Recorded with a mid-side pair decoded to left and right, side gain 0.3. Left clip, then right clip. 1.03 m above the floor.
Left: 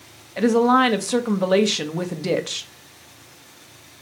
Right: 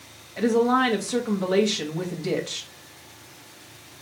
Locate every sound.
0.4 s a woman speaking: 65° left, 0.8 m